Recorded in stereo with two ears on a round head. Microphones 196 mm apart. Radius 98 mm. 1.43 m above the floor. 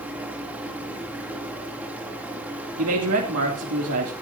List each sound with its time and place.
0.0 s running water: 5° right (ahead or behind), 2.5 m
2.8 s a man speaking: 80° right, 2.5 m